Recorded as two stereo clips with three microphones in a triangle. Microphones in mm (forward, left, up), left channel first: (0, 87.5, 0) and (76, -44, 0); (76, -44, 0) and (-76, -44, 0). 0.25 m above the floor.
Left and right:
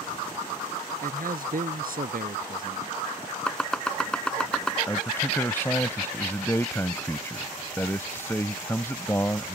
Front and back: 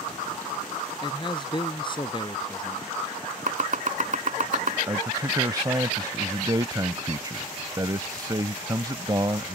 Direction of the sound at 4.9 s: 170° left.